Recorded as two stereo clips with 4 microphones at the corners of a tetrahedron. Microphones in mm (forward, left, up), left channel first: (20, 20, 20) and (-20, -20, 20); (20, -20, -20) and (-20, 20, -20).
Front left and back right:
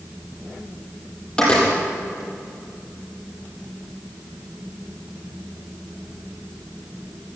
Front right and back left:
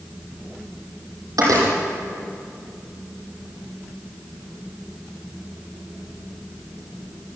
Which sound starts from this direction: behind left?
A door slam, at 1.4 s.